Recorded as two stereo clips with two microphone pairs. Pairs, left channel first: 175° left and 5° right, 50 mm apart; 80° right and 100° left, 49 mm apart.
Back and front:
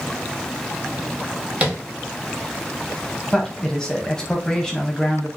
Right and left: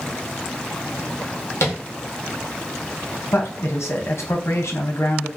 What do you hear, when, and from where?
1.6 s tapping: 65° right, 1.1 m
3.3 s a man speaking: 105° right, 0.8 m